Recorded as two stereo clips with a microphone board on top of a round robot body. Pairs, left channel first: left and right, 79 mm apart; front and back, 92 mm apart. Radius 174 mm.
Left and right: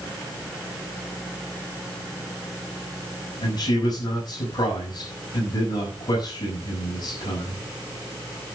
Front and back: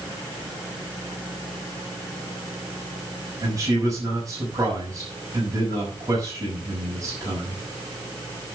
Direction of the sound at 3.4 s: 125° left.